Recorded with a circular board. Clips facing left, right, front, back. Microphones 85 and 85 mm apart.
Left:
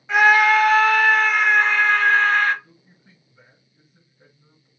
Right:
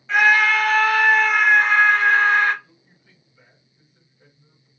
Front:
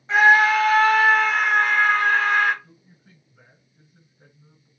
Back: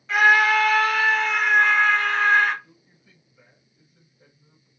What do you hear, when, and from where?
0.1 s a scream: 30° left, 1.5 m; by 2.5 s 15° right, 2.5 m
2.6 s a man speaking: 35° left, 2 m